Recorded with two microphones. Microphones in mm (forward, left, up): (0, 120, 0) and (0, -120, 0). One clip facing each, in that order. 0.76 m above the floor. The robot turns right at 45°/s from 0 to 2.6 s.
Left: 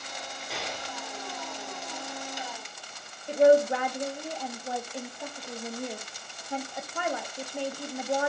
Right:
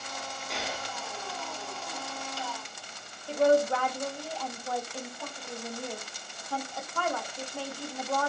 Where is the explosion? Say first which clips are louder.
Even; centre (ahead or behind), 0.7 m; by 0.9 s 15° right (ahead or behind), 0.7 m.